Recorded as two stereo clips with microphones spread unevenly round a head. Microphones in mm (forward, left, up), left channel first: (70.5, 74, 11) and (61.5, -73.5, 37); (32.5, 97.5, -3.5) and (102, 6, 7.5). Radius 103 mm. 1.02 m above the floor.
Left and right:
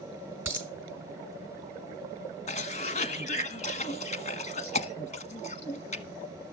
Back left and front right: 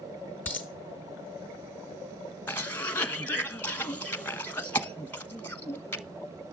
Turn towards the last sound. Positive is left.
turn(degrees=55)